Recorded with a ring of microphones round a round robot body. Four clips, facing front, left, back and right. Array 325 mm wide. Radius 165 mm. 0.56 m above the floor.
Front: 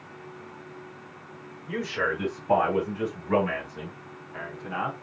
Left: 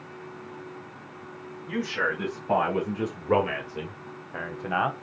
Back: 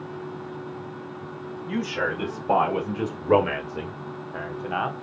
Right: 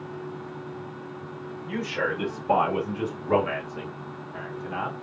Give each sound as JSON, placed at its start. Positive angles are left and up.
{"t": 1.7, "sound": "a man speaking", "azimuth_deg": -160, "distance_m": 3.0}